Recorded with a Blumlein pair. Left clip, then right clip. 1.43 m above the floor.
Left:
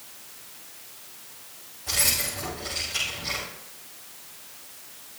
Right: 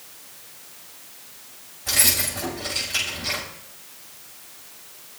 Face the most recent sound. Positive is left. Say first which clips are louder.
# right 4 dB
turn(degrees=-20)